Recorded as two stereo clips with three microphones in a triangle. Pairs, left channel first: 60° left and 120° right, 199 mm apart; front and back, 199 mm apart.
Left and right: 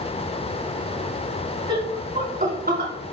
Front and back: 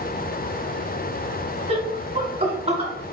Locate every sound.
1.7 s laughter: 165° right, 1.4 m; by 2.9 s 130° right, 1.9 m